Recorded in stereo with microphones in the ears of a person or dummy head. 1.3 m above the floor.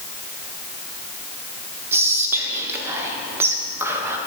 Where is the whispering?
15° right (ahead or behind), 0.9 m.